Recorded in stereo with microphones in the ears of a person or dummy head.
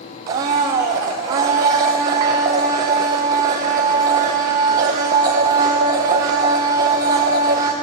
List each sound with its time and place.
0.3 s a blender: 20° right (ahead or behind), 0.6 m